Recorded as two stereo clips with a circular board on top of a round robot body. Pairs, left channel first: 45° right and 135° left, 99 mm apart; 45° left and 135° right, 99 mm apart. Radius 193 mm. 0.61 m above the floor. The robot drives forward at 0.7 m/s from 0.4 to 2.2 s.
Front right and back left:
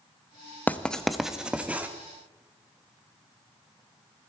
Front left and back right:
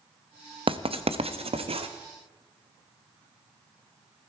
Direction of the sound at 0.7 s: 115° right.